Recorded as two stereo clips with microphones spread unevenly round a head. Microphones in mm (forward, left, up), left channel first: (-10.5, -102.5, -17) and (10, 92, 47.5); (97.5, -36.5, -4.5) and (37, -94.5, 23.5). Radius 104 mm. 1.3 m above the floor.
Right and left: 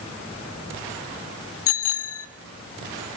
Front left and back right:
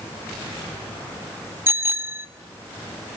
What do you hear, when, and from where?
1.7 s a bicycle bell: 75° right, 2.5 m